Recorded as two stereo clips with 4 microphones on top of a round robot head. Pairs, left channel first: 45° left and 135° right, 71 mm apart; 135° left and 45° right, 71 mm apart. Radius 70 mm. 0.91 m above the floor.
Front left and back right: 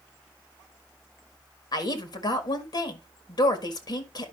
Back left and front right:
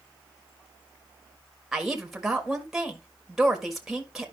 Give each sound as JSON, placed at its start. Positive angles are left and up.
{"t": 1.7, "sound": "a woman speaking", "azimuth_deg": 40, "distance_m": 1.8}